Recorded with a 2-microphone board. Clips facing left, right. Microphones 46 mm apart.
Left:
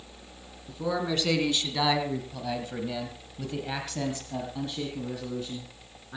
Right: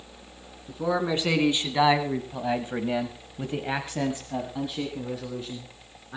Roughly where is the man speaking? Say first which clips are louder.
Right 3 dB; centre.